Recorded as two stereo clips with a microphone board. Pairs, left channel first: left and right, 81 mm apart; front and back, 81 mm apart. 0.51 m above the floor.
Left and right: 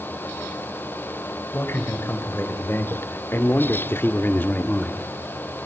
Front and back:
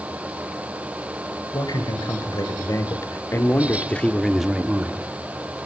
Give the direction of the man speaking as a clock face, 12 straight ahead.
11 o'clock.